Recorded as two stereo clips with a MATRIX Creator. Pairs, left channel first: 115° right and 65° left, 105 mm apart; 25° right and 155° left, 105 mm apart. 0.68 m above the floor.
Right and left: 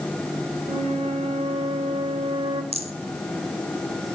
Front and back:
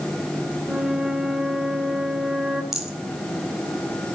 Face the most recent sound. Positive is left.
turn(degrees=70)